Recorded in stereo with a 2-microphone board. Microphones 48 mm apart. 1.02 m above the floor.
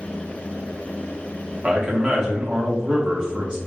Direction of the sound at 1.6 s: 15° right (ahead or behind).